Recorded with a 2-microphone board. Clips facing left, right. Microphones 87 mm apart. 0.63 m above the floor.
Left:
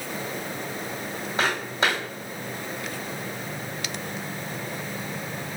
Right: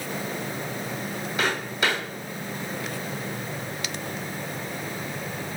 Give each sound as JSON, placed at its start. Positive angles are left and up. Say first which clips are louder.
{"t": 1.4, "sound": "footsteps", "louder": "left 1 dB", "side_deg": 30, "distance_m": 1.5}